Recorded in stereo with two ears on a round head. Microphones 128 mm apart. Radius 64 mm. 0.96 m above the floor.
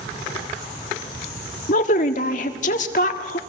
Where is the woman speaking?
55° left (ahead or behind), 1.7 m.